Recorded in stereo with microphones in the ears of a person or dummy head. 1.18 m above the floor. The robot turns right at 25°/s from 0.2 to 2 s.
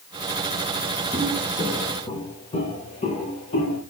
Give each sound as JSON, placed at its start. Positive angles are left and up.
{"t": 1.1, "sound": "footsteps", "side_deg": -5, "distance_m": 2.0}